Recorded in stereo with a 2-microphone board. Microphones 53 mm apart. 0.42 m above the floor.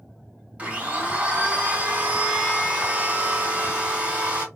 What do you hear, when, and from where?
0.6 s a blender: 30° right (ahead or behind), 1.6 m